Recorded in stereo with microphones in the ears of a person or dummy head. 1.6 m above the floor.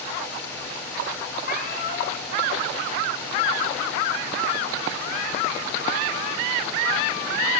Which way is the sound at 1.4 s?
55° left (ahead or behind).